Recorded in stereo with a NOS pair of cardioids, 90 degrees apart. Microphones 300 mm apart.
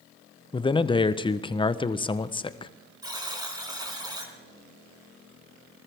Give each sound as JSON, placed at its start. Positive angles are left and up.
{"t": 0.5, "sound": "a man speaking", "azimuth_deg": 15, "distance_m": 0.8}
{"t": 3.0, "sound": "a buzzer", "azimuth_deg": -15, "distance_m": 4.0}